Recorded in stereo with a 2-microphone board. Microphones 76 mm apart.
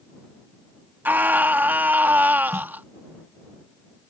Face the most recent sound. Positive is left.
turn(degrees=-40)  # may be behind; listen again after turning